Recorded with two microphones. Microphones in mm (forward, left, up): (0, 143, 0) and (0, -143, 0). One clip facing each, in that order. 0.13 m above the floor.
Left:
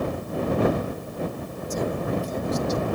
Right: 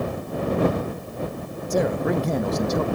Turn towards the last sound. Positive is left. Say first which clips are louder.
# right 5 dB
turn(degrees=-75)  # may be behind; listen again after turning